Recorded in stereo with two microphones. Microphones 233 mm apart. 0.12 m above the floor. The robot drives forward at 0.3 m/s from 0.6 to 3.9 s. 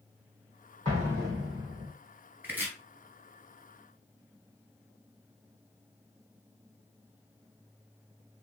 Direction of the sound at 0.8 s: 30° right (ahead or behind).